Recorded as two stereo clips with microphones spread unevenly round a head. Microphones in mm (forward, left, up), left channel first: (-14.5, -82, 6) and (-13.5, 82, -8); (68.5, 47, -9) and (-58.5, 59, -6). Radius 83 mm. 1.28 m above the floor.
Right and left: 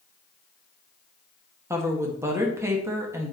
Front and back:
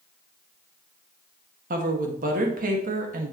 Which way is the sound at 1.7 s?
165° left.